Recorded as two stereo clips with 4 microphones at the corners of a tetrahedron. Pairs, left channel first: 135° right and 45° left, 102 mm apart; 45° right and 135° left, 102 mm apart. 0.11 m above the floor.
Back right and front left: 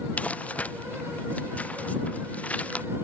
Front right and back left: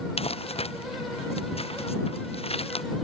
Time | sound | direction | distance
0.2 | crumpling | 60° right | ?